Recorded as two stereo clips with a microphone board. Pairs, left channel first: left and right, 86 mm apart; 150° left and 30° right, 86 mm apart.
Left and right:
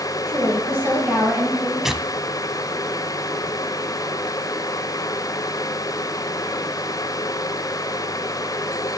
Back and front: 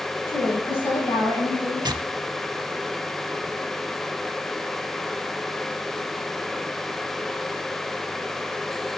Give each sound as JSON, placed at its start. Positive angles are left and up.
{"t": 0.3, "sound": "a woman speaking", "azimuth_deg": -150, "distance_m": 6.5}
{"t": 1.8, "sound": "tearing paper", "azimuth_deg": -5, "distance_m": 0.6}